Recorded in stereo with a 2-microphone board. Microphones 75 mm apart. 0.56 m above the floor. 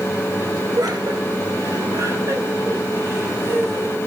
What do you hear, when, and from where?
0.8 s laughter: 60° right (ahead or behind), 3.5 m; by 4.0 s 25° right (ahead or behind), 5.5 m